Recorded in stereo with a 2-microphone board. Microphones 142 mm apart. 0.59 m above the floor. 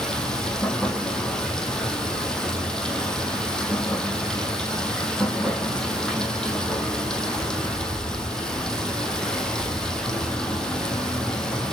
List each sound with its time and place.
0.0 s running water: 5° left (ahead or behind), 3 m